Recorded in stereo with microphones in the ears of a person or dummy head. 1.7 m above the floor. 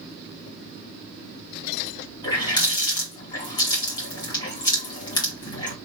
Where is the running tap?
30° left (ahead or behind), 2 m.